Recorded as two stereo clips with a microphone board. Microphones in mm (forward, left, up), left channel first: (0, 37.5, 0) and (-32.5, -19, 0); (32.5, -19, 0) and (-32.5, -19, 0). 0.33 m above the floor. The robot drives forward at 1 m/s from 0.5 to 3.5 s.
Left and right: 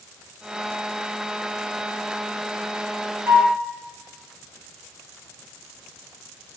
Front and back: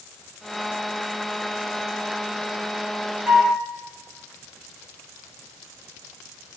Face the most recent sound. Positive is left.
turn(degrees=-135)